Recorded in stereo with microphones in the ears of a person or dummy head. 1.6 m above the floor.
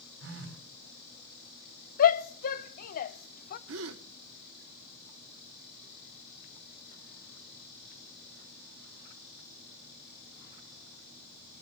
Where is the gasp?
80° right, 1.2 m.